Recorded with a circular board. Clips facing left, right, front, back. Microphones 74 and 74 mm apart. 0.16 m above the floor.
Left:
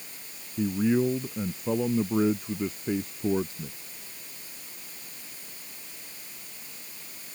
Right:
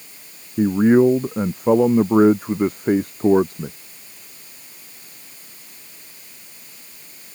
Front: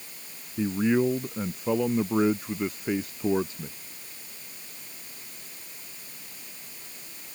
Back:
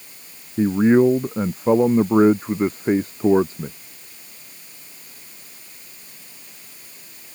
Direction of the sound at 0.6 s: 125° right.